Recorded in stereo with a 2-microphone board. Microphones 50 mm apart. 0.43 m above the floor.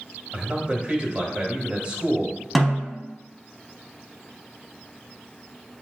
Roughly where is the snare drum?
Centre.